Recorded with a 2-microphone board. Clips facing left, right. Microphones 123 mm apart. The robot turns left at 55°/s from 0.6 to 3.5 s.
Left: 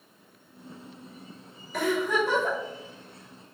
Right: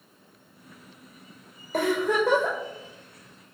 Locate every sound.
1.7 s a giggle: 55° right, 3 m; by 2.6 s 100° right, 3 m